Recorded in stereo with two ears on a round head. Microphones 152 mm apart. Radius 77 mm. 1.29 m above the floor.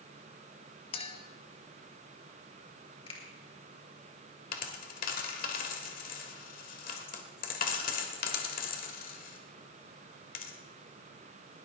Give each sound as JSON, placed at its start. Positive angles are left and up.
{"t": 0.9, "sound": "a clink", "side_deg": 35, "distance_m": 1.3}
{"t": 3.1, "sound": "a finger snap", "side_deg": 35, "distance_m": 4.0}
{"t": 4.5, "sound": "a dropped coin", "side_deg": 50, "distance_m": 1.8}